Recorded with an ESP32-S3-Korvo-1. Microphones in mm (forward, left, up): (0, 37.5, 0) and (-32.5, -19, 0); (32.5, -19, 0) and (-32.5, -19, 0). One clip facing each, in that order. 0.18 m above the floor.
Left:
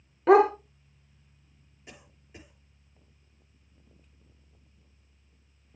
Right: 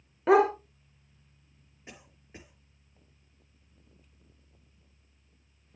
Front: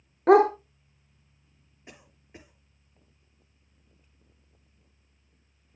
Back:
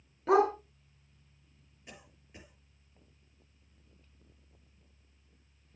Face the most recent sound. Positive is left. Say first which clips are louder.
# right 1 dB, front 2 dB
turn(degrees=-60)